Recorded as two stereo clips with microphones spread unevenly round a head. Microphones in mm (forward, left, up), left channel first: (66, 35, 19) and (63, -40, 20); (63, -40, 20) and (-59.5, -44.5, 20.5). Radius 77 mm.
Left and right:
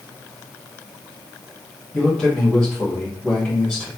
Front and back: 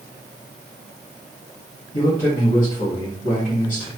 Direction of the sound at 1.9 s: 10° left.